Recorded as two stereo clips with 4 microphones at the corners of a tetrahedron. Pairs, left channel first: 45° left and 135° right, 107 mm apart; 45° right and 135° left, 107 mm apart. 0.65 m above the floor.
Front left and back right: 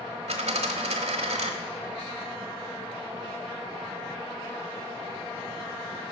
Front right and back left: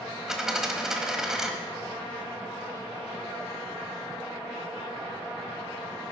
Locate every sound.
0.3 s a dropped coin: 140° right, 1.2 m